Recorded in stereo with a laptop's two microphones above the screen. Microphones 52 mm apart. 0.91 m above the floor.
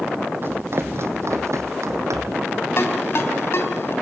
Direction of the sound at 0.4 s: 45° right (ahead or behind).